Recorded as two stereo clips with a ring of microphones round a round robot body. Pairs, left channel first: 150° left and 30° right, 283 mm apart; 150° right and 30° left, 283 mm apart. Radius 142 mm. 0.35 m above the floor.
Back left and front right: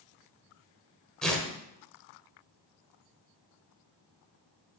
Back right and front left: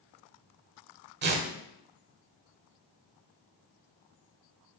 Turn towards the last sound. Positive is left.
turn(degrees=65)